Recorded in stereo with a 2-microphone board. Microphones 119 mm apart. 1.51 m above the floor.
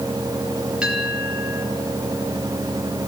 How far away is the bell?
About 7 m.